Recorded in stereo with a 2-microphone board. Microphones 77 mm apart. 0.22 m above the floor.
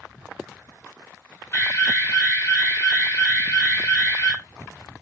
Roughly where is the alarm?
Left.